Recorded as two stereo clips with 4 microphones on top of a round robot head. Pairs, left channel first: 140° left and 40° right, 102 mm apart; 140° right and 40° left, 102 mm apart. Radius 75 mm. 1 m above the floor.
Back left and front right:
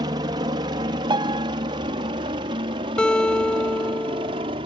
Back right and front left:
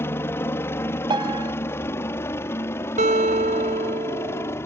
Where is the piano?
Straight ahead.